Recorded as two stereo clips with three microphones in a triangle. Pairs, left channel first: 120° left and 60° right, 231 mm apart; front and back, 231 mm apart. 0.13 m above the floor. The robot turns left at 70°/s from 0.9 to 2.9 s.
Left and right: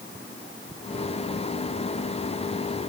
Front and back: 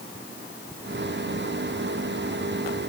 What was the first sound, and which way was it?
Only background noise.